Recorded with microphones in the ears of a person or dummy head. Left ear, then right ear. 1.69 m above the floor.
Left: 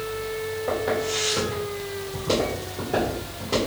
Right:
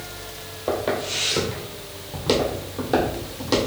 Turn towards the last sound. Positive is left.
turn(degrees=-50)  # may be behind; listen again after turning